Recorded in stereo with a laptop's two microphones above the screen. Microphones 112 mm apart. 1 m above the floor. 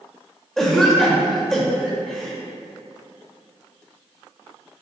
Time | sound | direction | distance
0.6 | a cough | centre (ahead or behind) | 0.9 m